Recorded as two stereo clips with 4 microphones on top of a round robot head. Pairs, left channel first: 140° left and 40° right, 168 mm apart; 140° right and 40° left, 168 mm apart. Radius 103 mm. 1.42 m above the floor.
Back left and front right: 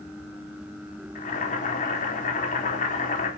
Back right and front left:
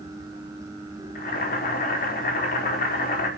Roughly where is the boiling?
Behind.